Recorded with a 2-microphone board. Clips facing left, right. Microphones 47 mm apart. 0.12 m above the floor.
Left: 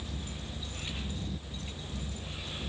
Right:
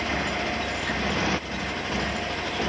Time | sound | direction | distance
0.0 | a motorcycle | 80° right | ?